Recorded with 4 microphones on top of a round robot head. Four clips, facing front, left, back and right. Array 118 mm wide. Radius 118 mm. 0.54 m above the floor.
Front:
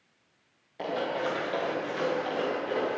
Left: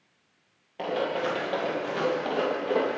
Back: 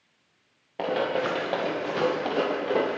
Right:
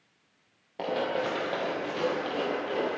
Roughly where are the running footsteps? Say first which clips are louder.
Left 1 dB, back 4 dB; behind.